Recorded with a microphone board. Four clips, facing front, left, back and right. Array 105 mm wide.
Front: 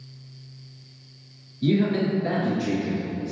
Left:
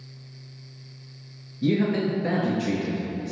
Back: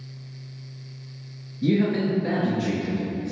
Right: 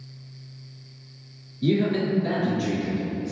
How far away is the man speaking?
About 1.1 m.